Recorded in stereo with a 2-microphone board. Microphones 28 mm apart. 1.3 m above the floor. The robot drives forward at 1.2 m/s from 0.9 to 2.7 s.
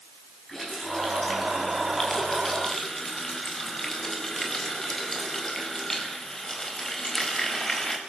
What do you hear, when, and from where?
0.5 s a running tap: 10° left (ahead or behind), 6.5 m